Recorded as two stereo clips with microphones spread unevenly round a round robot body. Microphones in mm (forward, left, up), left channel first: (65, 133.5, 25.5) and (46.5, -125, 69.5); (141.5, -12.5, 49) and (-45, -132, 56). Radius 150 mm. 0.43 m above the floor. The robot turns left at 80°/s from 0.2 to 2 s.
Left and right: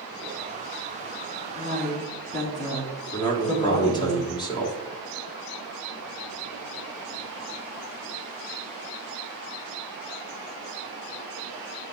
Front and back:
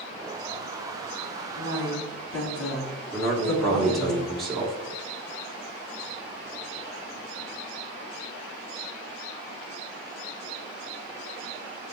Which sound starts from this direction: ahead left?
A woman speaking, at 1.6 s.